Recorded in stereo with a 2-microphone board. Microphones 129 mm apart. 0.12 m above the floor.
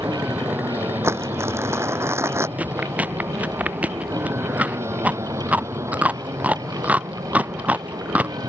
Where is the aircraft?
15° right (ahead or behind); by 8.5 s 25° right (ahead or behind).